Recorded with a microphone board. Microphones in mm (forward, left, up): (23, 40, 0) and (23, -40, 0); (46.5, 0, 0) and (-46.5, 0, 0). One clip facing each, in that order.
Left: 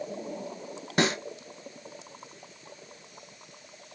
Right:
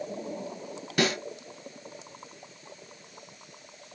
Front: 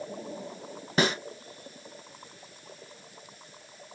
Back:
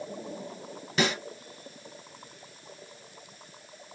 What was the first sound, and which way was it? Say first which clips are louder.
A snare drum: left 1 dB, front 1 dB; 40° left.